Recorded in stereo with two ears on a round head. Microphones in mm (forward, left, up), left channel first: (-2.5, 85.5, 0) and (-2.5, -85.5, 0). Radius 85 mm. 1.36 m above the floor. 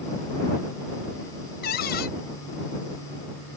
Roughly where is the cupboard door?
Left.